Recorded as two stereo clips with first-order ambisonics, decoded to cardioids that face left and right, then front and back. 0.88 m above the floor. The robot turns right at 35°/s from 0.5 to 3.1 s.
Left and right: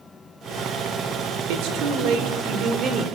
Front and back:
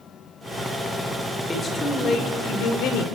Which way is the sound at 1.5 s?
80° right.